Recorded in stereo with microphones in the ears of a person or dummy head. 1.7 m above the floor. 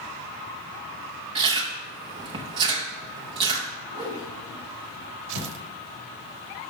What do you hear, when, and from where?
1.4 s chewing: 30° right (ahead or behind), 0.6 m
3.9 s a whoosh: 30° right (ahead or behind), 1.7 m
5.3 s tearing paper: 65° right (ahead or behind), 0.8 m